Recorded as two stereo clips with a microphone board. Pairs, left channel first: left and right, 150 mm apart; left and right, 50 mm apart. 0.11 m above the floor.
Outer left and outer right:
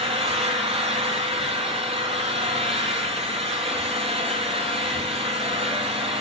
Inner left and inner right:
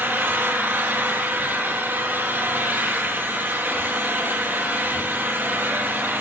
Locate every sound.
0.0 s an engine running: 40° right (ahead or behind), 1.5 m